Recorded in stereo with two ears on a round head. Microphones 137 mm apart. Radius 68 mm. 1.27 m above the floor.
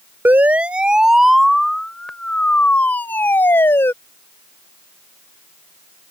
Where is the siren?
10° right (ahead or behind); by 3.9 s 15° left (ahead or behind).